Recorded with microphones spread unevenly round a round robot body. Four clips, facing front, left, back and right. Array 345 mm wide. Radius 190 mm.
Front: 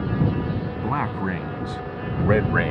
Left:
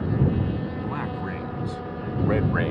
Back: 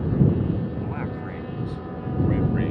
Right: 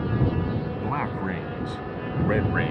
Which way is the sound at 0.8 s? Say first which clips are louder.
Right 2 dB, front 5 dB; 20° right.